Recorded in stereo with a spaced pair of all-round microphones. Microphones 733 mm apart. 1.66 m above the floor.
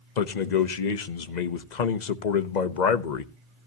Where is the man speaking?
75° left (ahead or behind), 0.9 m.